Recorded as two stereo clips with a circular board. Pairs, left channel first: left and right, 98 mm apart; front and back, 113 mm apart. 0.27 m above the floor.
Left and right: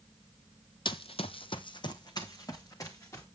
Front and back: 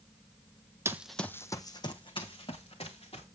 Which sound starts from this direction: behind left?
Running footsteps, at 0.8 s.